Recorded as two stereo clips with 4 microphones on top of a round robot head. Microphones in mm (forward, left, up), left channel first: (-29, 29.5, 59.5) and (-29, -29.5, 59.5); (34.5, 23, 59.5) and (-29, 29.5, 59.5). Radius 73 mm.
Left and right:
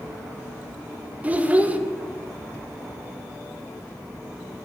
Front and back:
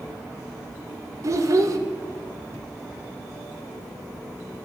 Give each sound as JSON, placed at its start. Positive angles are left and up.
{"t": 1.2, "sound": "a child speaking", "azimuth_deg": -155, "distance_m": 0.8}